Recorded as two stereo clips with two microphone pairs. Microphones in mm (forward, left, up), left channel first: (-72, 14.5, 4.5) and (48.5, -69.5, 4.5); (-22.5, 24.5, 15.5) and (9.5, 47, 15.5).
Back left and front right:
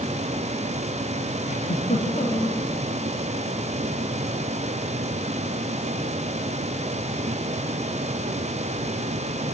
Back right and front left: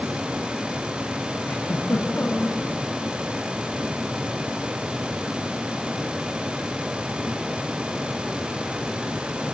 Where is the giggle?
Straight behind, 4.5 m.